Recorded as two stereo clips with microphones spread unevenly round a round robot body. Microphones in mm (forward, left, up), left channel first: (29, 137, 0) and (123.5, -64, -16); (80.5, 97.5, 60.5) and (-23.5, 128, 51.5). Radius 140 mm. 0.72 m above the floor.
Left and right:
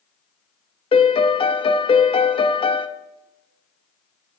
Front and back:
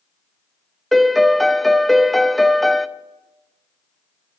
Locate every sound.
0.9 s a piano: 80° left, 0.5 m